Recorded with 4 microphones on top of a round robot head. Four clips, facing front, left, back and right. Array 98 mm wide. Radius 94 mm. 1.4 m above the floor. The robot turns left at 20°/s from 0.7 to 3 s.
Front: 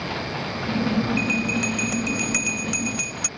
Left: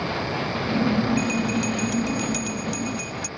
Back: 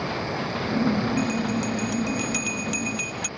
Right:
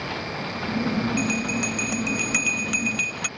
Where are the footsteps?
No footsteps in this recording.